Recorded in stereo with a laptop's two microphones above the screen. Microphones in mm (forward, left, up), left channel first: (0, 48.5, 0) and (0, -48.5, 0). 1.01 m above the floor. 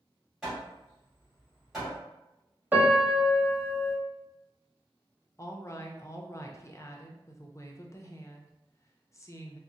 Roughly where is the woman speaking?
Left.